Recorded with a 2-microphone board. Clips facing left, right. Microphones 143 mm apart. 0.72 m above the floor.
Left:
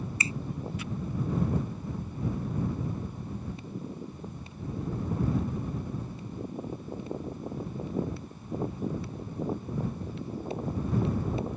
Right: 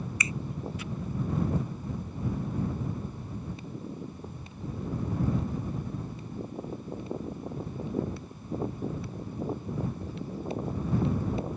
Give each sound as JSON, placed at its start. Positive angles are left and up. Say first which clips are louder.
{"t": 0.2, "sound": "a finger snap", "louder": "left 1 dB", "side_deg": 30}